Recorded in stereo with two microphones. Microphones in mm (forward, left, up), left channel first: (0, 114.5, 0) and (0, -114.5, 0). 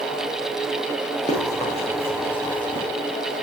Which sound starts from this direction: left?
Running footsteps, at 1.3 s.